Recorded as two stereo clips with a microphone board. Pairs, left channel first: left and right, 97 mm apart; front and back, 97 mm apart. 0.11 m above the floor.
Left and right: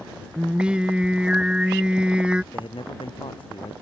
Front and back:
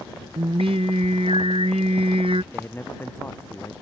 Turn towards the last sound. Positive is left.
turn(degrees=65)